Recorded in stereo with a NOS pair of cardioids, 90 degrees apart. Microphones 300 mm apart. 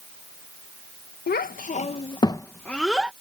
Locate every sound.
1.3 s a child speaking: 35° left; by 3.1 s 5° right